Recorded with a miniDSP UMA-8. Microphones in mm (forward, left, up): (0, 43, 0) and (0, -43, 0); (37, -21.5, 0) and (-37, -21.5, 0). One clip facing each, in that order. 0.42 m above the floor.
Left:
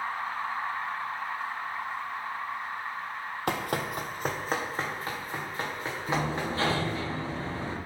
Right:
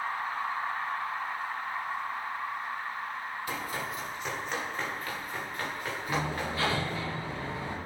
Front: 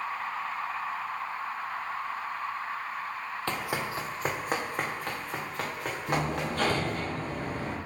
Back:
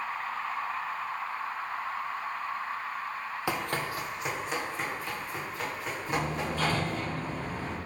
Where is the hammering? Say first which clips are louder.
Left 3 dB, front 2 dB; 30° left, 3.5 m.